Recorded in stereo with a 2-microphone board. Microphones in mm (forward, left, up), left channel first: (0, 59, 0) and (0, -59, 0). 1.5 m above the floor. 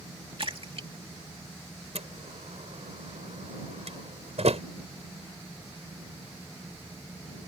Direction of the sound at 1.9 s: 65° right (ahead or behind).